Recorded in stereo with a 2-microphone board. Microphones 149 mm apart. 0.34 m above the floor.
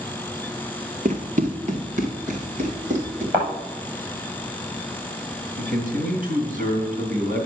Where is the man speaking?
70° right (ahead or behind), 3 m.